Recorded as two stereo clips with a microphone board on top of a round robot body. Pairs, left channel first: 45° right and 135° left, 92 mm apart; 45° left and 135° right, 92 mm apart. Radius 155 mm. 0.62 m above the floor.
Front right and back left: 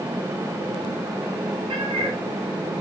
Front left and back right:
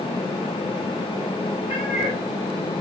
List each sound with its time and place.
1.7 s a cat meowing: 165° left, 3.5 m